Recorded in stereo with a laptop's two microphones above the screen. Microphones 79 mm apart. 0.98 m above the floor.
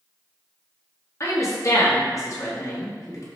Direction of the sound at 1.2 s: 45° left (ahead or behind).